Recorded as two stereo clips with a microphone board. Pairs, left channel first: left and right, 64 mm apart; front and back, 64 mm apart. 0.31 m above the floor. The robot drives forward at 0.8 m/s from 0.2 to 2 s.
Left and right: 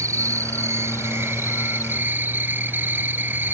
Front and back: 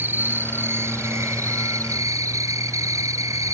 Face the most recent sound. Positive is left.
turn(degrees=-145)